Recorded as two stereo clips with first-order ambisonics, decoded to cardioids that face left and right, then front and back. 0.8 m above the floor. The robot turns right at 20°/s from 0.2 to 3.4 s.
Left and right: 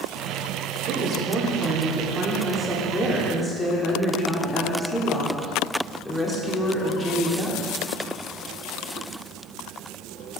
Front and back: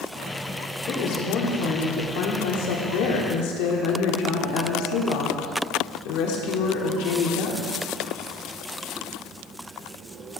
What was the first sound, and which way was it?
A woman speaking, 45° right.